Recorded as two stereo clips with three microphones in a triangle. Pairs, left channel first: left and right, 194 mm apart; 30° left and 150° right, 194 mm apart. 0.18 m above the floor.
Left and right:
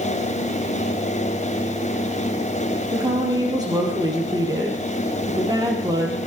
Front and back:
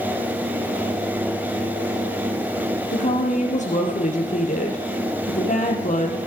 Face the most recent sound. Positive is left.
turn(degrees=-20)